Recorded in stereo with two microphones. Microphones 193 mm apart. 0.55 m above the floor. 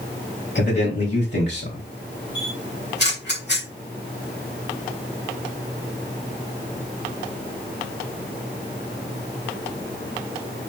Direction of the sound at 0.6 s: 70° left (ahead or behind).